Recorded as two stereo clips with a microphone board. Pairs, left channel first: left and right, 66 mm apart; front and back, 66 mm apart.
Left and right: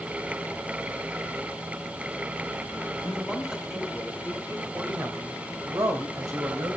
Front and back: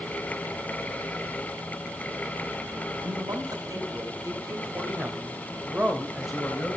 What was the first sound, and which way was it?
A man speaking, 175° right.